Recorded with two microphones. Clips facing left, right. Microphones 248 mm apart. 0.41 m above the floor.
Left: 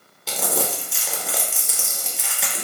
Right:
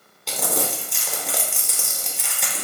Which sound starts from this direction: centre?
Crumpling, at 0.3 s.